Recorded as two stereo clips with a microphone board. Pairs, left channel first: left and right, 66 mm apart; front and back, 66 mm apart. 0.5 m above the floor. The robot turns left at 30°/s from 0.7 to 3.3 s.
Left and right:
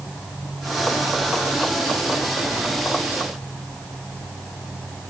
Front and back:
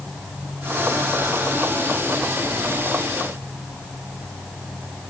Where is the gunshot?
I don't hear a gunshot.